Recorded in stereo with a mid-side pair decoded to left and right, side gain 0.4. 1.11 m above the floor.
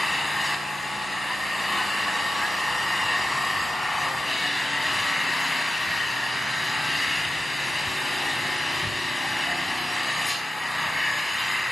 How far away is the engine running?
About 4.5 m.